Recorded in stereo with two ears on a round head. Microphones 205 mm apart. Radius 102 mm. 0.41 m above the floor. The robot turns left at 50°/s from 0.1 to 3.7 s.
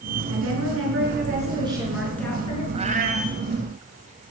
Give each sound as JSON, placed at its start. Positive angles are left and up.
{"t": 0.3, "sound": "a woman speaking", "azimuth_deg": -90, "distance_m": 5.5}
{"t": 2.7, "sound": "a cat meowing", "side_deg": -25, "distance_m": 1.3}